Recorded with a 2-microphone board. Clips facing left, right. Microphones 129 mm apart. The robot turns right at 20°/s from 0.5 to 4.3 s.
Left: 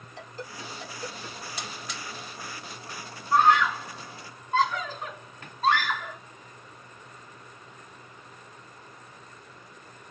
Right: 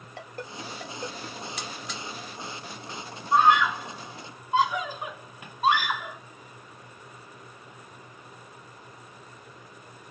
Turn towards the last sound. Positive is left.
turn(degrees=-15)  # may be behind; listen again after turning